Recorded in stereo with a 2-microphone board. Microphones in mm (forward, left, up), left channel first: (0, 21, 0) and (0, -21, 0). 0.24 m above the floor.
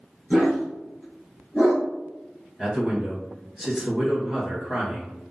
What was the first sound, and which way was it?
A dog barking, 5° right (ahead or behind).